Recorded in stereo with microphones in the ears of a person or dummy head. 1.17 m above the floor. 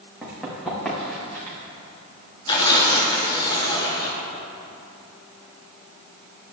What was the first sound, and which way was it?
Running footsteps, 5° left (ahead or behind).